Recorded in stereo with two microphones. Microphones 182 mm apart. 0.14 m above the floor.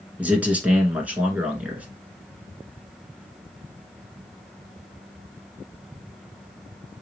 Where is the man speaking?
10° right (ahead or behind), 1.5 m.